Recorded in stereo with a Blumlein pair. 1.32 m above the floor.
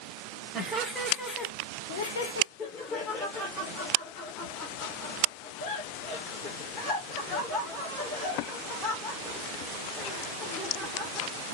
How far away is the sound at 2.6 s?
About 1.5 m.